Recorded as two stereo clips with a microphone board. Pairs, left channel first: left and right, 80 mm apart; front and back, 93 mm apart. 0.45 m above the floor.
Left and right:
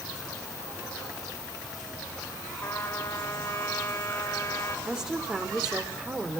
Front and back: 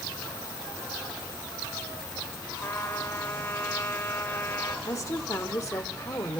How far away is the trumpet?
About 1.7 m.